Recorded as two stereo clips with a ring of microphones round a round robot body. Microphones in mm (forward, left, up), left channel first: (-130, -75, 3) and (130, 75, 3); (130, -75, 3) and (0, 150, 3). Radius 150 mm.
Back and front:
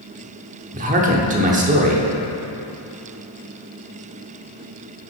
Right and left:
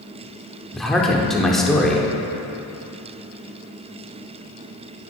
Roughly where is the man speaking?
Ahead left.